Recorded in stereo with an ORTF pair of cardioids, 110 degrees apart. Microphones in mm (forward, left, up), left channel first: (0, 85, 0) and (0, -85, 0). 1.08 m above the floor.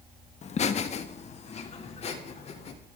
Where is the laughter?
45° left, 1.4 m; by 2.7 s 40° left, 4 m.